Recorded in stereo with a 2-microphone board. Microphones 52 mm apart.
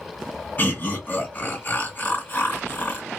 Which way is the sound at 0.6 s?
35° left (ahead or behind).